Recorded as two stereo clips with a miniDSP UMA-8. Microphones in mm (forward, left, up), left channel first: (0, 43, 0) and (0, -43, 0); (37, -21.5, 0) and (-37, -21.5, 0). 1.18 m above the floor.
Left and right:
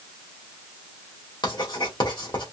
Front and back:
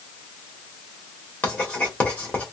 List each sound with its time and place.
1.4 s writing: 70° left, 1.7 m